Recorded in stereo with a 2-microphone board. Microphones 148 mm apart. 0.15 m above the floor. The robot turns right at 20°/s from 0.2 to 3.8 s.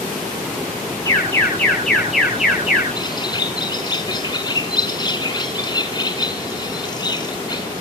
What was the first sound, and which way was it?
An alarm, 160° left.